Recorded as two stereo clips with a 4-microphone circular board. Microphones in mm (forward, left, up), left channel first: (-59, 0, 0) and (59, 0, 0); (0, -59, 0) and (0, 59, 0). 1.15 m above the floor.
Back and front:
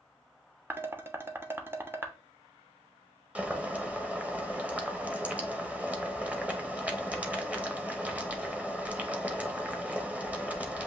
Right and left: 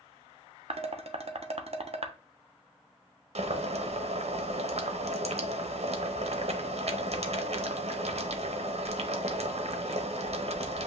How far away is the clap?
I don't hear a clap.